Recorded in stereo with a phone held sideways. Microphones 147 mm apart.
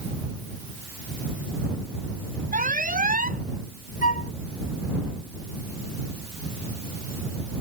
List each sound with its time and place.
2.5 s an alarm: 80° right
4.0 s a flute: 70° left (ahead or behind)